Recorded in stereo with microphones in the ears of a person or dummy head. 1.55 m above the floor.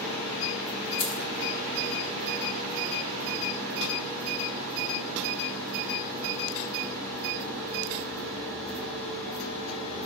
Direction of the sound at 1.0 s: 15° left (ahead or behind).